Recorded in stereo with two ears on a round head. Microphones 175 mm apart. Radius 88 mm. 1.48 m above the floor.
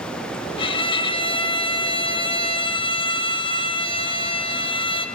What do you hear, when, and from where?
0.6 s a violin: 25° left (ahead or behind), 1.0 m